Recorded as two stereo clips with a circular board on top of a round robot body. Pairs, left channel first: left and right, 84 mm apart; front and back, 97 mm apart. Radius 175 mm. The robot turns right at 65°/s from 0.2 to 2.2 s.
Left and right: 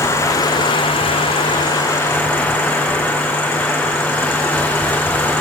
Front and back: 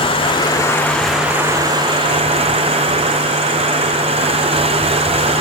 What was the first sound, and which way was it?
Running water, 30° left.